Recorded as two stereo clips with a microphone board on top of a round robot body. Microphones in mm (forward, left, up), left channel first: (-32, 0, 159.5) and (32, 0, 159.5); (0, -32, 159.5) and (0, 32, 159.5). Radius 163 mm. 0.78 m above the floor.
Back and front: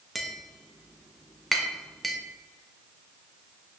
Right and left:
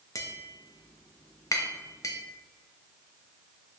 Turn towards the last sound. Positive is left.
turn(degrees=-90)